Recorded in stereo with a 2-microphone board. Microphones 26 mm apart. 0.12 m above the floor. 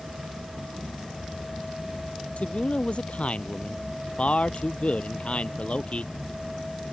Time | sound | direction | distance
2.4 | a man speaking | 50° left (ahead or behind) | ?